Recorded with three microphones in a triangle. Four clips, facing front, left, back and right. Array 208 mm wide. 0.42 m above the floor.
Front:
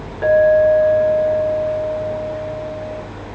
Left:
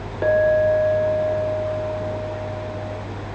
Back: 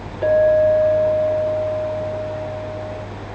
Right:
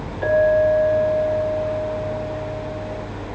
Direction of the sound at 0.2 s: 75° left.